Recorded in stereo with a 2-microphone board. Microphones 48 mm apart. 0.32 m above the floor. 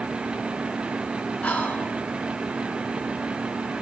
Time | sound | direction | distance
1.4 | whispering | 25° left (ahead or behind) | 0.9 m